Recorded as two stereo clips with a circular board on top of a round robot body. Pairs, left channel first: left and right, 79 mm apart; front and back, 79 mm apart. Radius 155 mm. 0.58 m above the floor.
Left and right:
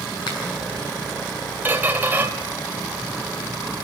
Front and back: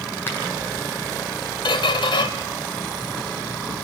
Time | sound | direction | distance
0.3 | a finger snap | 65° left | 8.5 m
1.6 | a squeak | 20° right | 1.1 m